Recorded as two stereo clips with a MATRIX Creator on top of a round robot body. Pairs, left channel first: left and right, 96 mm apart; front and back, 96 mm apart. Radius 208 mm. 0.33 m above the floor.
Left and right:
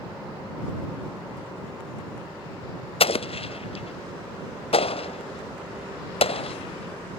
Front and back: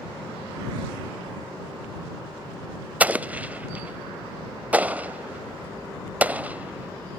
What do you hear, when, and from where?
3.0 s an explosion: 105° left